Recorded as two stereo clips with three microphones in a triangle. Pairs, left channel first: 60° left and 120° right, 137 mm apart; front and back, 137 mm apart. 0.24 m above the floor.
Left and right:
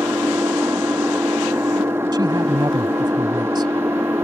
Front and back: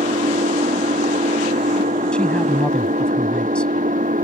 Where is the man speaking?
80° right.